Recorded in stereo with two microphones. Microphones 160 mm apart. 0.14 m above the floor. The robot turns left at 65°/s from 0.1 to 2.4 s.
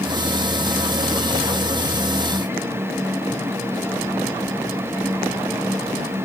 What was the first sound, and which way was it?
Only background noise.